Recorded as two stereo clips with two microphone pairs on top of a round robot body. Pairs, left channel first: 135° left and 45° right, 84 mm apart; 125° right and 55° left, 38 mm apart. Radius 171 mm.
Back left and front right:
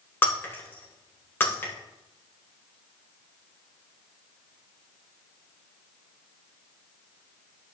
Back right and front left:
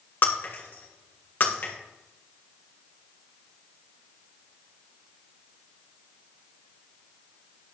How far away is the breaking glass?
About 2.5 m.